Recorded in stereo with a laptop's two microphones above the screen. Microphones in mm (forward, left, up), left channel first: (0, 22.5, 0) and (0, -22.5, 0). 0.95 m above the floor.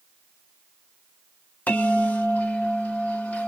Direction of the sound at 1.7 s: 30° left (ahead or behind).